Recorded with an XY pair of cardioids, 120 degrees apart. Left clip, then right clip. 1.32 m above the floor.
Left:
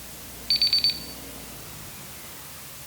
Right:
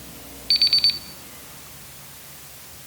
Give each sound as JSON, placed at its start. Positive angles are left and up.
{"t": 0.5, "sound": "an alarm clock", "azimuth_deg": -25, "distance_m": 1.6}